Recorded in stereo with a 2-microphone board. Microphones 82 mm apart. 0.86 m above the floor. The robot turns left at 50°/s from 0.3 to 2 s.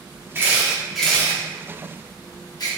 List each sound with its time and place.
0.3 s a camera shutter: 30° right (ahead or behind), 0.7 m; by 2.7 s 50° left (ahead or behind), 0.7 m